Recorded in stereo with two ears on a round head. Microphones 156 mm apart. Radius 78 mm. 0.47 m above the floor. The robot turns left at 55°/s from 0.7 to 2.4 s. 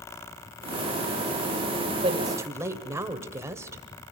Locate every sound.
2.0 s a woman speaking: 35° right (ahead or behind), 1.8 m; by 3.8 s 15° right (ahead or behind), 1.8 m